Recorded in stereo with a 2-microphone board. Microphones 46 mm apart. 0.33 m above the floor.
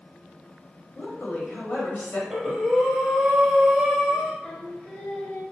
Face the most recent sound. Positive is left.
turn(degrees=20)  # may be behind; listen again after turning